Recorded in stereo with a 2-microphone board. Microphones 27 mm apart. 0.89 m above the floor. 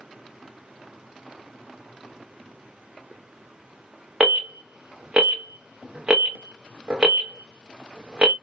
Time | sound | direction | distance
4.2 | an alarm | 45° right (ahead or behind) | 1.0 m